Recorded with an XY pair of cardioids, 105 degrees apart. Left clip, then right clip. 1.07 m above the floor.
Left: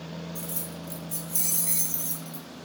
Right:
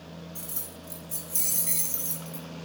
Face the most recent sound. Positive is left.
turn(degrees=5)